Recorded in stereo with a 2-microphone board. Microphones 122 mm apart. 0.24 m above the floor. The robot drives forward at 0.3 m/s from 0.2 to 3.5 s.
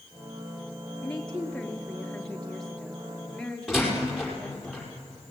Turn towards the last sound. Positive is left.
turn(degrees=0)  # may be behind; listen again after turning